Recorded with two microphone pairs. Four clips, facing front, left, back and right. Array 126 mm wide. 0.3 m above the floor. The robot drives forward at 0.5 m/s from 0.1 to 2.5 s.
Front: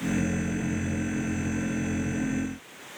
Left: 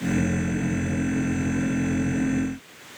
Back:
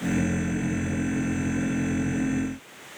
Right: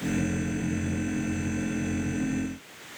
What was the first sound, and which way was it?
Only background noise.